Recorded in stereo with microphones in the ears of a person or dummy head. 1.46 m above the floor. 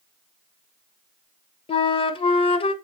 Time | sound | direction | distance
1.7 | a flute | 35° left (ahead or behind) | 0.7 m